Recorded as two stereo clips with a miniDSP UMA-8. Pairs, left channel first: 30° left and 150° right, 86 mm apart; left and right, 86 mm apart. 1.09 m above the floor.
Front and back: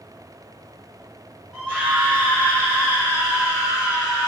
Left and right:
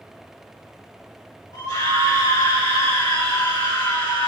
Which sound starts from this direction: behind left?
A scream, at 1.5 s.